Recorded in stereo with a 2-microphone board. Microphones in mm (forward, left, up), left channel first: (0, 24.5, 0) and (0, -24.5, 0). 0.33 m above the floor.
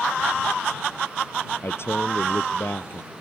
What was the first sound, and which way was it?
A man speaking, 55° left (ahead or behind).